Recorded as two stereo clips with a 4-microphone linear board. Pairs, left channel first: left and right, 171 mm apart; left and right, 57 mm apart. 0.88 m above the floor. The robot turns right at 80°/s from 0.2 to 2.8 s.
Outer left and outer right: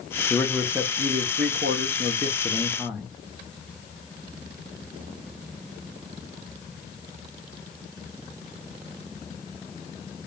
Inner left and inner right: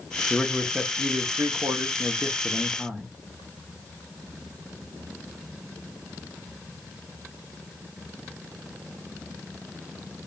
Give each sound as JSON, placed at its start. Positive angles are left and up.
{"t": 0.3, "sound": "a man speaking", "azimuth_deg": 160, "distance_m": 0.7}